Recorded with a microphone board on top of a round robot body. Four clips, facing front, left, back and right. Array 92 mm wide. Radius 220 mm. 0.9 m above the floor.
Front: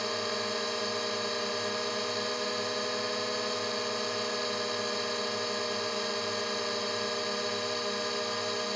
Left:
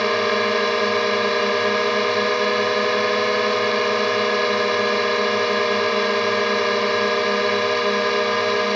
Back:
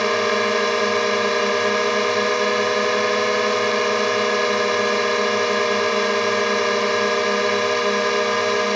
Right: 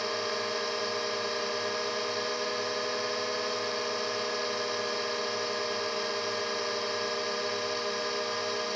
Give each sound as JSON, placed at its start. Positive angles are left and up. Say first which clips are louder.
{"t": 0.0, "sound": "a drone", "louder": "left 13 dB, back 14 dB", "azimuth_deg": 140}